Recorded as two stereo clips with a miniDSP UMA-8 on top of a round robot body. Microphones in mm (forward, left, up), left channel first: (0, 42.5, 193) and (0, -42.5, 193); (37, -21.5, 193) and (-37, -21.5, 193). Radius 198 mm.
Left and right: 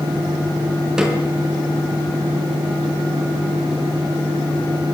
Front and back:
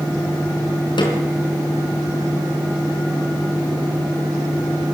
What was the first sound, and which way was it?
A snare drum, 5° right.